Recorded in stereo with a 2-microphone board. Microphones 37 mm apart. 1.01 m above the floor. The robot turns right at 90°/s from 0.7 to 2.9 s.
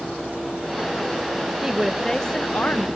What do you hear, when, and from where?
1.6 s a woman speaking: 30° right; by 2.9 s 85° left